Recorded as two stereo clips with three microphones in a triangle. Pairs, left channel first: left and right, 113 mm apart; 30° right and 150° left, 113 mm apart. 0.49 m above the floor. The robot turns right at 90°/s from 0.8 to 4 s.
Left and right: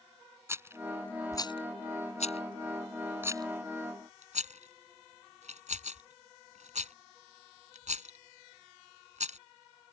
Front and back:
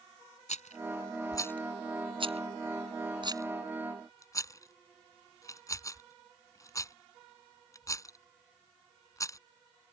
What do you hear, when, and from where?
0.5 s a rattle: 20° right; by 9.4 s 95° right